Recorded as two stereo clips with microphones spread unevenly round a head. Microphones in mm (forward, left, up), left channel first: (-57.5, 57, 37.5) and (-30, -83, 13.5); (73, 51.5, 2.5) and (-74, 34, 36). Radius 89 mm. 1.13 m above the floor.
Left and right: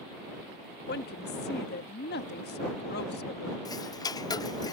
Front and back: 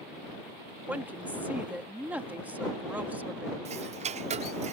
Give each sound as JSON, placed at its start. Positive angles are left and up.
{"t": 0.9, "sound": "a woman speaking", "azimuth_deg": 105}
{"t": 3.6, "sound": "ticking", "azimuth_deg": 160}